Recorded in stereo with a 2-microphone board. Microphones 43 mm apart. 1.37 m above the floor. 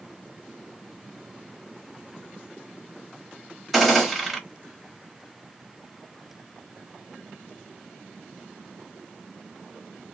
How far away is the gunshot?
About 1.3 m.